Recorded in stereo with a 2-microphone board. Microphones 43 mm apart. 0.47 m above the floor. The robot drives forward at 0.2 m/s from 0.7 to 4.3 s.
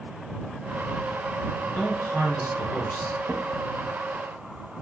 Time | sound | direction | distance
1.6 | a man speaking | 60° left (ahead or behind) | 3 m
3.2 | a drawer | 65° right (ahead or behind) | 0.8 m